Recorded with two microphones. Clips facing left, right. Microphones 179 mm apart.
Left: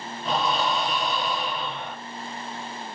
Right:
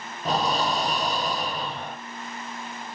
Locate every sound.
0.2 s breathing: 45° right (ahead or behind), 0.7 m